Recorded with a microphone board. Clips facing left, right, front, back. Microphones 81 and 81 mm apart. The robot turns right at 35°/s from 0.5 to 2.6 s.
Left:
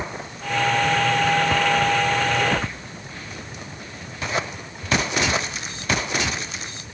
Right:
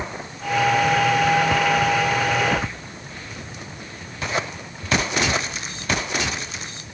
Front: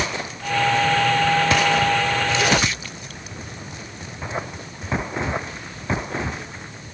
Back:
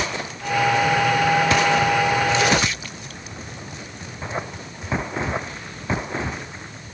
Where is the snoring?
I don't hear snoring.